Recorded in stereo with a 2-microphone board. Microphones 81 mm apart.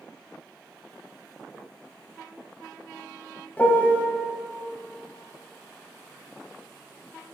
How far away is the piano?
About 0.7 m.